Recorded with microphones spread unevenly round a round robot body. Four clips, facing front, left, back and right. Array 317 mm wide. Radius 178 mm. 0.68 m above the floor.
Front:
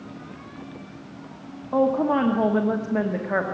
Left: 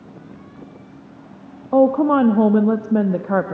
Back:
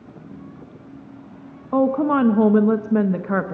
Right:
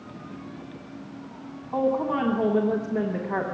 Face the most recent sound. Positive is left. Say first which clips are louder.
# left 10 dB, back 2 dB
turn(degrees=100)